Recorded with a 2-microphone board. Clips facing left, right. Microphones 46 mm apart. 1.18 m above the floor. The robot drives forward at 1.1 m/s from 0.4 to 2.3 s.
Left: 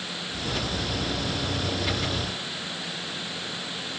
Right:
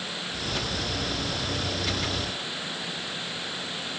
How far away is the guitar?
I don't hear a guitar.